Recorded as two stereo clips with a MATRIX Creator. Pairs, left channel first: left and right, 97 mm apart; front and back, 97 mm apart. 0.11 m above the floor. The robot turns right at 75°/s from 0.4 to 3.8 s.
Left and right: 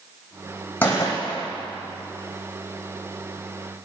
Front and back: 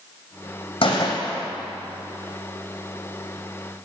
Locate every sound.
0.8 s a gunshot: 20° left, 3 m; by 1.5 s 70° left, 3 m